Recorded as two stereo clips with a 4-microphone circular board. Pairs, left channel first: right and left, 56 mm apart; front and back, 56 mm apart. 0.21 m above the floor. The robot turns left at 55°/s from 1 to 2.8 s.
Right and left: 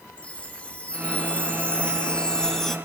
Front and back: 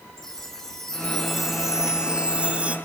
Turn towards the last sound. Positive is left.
turn(degrees=-170)